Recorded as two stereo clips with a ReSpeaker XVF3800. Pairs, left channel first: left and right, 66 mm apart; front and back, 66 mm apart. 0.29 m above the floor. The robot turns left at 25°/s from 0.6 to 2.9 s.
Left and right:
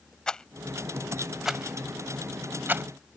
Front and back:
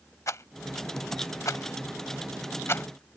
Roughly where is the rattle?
Ahead.